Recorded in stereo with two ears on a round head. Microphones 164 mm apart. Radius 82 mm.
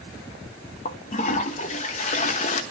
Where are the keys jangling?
No keys jangling in this recording.